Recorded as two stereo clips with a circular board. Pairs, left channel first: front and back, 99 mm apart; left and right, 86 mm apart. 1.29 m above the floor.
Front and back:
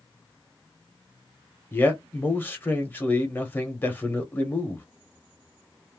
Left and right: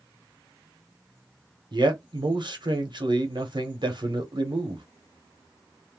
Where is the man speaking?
70° right, 1.0 m.